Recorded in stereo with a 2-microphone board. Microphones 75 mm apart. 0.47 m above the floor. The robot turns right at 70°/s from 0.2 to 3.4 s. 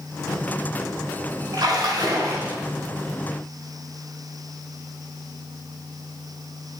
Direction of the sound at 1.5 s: 105° right.